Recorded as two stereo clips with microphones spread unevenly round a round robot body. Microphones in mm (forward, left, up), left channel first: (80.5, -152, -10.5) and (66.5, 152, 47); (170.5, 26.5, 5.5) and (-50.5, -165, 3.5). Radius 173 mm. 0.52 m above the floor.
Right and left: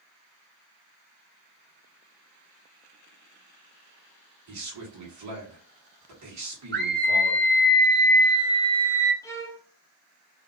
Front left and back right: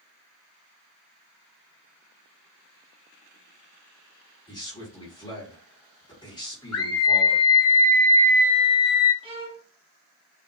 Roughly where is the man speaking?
Left.